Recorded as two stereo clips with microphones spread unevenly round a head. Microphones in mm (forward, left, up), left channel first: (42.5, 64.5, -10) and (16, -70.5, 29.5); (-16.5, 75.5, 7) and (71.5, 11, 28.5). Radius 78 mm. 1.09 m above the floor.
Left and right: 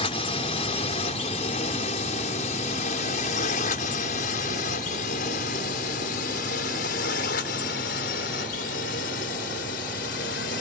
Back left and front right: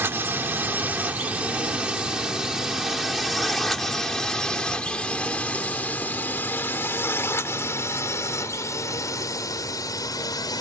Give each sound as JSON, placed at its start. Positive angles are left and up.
{"t": 0.0, "sound": "a drone", "azimuth_deg": 35}